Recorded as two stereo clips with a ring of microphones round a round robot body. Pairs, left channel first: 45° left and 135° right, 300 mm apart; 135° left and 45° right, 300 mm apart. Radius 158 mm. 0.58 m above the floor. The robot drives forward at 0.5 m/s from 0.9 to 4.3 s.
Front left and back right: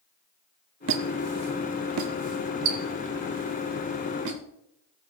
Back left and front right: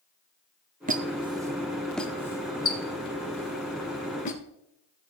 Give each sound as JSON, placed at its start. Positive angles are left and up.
{"t": 0.9, "sound": "a squeak", "azimuth_deg": -100, "distance_m": 0.8}